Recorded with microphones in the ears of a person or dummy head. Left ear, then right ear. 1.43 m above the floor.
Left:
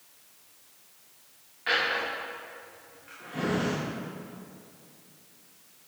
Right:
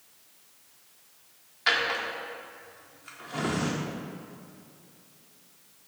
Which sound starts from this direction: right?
A drawer, at 1.7 s.